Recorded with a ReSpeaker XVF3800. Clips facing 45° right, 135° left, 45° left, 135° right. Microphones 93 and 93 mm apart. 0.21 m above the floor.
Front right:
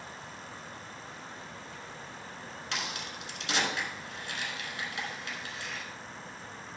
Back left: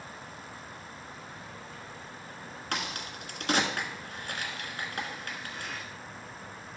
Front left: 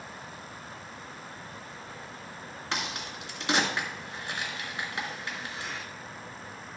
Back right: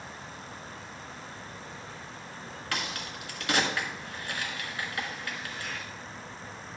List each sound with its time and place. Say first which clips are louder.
2.7 s a crack: back left 3 dB, front left 1 dB; 105° left, 1.5 m